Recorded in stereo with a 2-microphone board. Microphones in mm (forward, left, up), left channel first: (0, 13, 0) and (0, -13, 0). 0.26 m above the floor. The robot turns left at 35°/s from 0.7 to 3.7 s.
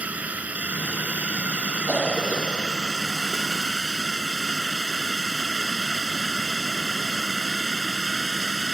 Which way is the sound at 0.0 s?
65° right (ahead or behind).